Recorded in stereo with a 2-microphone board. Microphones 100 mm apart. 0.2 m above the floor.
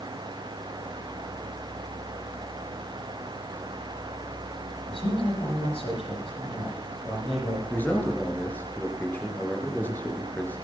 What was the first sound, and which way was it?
A man speaking, 65° left (ahead or behind).